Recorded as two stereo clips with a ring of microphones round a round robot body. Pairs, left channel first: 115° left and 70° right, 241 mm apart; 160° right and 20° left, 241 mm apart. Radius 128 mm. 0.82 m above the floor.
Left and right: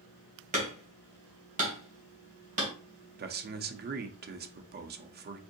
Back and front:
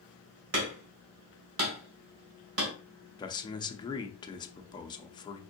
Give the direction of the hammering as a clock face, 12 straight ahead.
12 o'clock.